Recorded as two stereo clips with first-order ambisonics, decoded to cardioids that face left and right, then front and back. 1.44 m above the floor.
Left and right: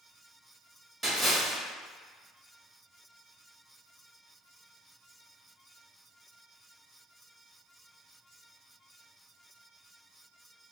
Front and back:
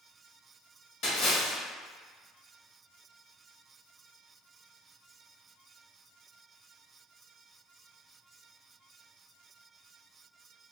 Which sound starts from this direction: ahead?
A splash, at 1.0 s.